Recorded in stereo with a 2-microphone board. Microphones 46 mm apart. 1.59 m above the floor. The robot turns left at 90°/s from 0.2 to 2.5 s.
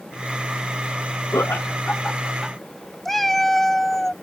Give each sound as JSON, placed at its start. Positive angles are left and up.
{"t": 1.3, "sound": "laughter", "side_deg": 75}
{"t": 3.0, "sound": "a cat meowing", "side_deg": 5}